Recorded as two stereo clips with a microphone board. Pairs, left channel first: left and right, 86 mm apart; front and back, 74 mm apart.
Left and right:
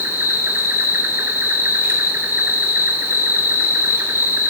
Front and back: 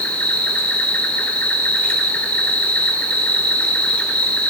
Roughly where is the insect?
Ahead right.